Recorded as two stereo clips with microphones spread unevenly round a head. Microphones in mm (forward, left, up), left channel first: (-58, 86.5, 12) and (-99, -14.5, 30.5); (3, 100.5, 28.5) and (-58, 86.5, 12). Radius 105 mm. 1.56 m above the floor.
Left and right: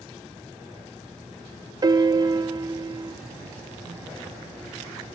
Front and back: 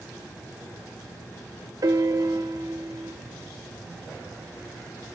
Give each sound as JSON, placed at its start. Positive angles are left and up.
{"t": 1.8, "sound": "a piano", "azimuth_deg": -120, "distance_m": 0.8}